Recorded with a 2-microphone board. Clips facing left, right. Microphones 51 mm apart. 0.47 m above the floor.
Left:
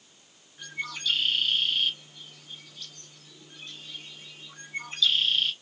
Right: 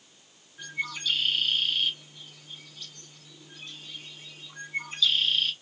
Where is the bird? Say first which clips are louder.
Right 1 dB; 5° right (ahead or behind), 0.9 m.